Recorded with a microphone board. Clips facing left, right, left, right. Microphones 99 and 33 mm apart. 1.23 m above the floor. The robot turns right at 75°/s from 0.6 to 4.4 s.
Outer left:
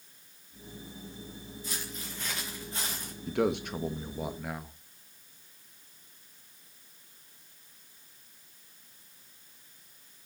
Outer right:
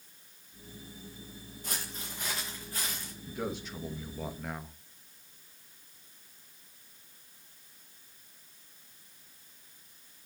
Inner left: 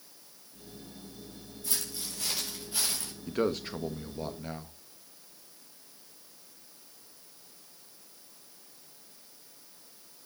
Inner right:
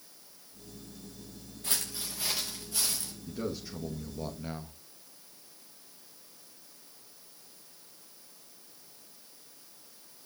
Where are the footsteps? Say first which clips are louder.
Outer right 1 dB, inner right 2 dB; 50° right (ahead or behind), 6 m; by 3.1 s 50° left (ahead or behind), 5.5 m.